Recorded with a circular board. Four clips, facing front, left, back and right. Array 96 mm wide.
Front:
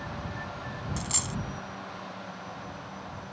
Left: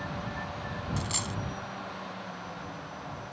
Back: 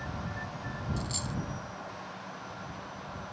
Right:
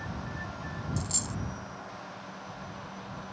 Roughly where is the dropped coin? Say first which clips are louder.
Left 2 dB, front 1 dB; ahead left.